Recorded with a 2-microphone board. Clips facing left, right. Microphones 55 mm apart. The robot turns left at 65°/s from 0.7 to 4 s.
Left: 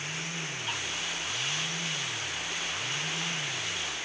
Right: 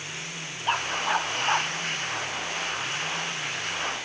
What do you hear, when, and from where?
0.7 s a dog barking: 45° right (ahead or behind); by 1.7 s 65° right (ahead or behind)